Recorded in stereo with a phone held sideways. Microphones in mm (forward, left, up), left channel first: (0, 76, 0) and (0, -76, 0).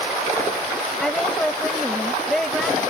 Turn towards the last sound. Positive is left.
turn(degrees=0)  # may be behind; listen again after turning